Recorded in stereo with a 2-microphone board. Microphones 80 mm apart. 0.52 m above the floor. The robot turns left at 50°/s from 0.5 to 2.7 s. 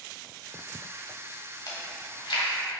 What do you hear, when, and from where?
1.7 s chewing: 55° left (ahead or behind), 1.1 m; by 2.5 s 85° left, 1.1 m